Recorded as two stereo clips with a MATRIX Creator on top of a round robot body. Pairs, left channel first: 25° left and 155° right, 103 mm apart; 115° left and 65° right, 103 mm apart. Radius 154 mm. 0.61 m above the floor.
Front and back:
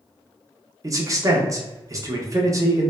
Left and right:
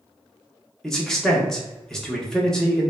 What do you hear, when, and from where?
0.8 s a man speaking: 165° right, 0.8 m